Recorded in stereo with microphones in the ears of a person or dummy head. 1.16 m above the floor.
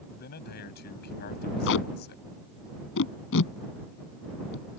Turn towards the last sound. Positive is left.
turn(degrees=65)  # may be behind; listen again after turning